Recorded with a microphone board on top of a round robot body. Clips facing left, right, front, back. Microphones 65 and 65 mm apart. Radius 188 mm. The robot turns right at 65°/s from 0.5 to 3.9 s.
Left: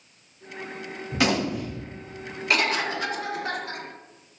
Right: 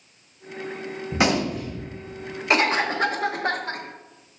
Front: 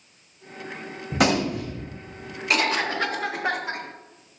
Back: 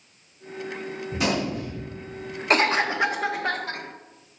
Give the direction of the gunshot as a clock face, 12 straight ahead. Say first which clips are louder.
Right 2 dB, front 4 dB; 1 o'clock.